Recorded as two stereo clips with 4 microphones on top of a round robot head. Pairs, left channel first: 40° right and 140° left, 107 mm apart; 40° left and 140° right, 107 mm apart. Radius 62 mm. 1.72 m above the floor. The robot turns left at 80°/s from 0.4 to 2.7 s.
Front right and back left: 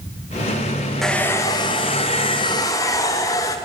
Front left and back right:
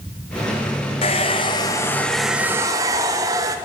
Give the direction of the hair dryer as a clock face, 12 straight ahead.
10 o'clock.